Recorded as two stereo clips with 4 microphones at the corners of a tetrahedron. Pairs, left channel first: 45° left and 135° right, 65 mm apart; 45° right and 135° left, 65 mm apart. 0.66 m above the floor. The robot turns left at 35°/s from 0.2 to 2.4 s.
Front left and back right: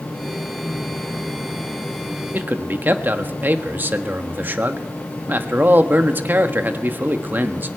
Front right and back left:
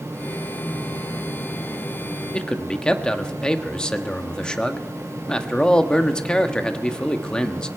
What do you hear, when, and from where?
2.3 s a man speaking: 110° right, 1.3 m